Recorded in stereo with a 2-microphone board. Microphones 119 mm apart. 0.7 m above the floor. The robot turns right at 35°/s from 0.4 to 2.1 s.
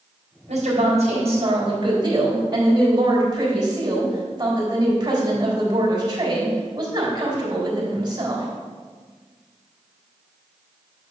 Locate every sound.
0.5 s a woman speaking: 100° right, 3.5 m; by 8.5 s 40° right, 3.5 m